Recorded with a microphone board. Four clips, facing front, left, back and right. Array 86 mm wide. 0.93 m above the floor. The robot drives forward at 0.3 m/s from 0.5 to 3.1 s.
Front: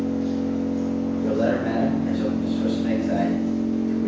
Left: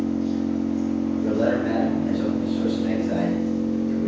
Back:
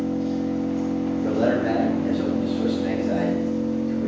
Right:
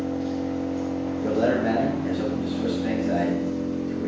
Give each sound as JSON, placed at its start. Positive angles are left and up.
{"t": 0.0, "sound": "an engine running", "azimuth_deg": -85, "distance_m": 0.8}
{"t": 1.2, "sound": "a man speaking", "azimuth_deg": -130, "distance_m": 1.2}